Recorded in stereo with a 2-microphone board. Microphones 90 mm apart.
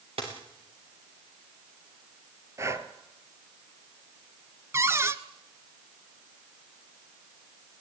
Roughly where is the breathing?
Right.